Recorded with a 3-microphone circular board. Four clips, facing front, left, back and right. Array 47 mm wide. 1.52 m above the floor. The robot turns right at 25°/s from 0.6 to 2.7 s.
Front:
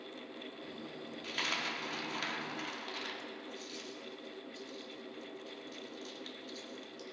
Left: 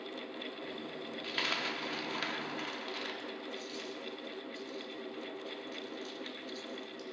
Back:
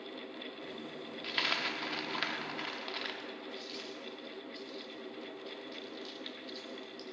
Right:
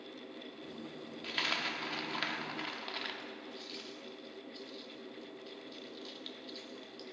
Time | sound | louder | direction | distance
1.2 | a dropped coin | even, back 3 dB | straight behind | 1.1 m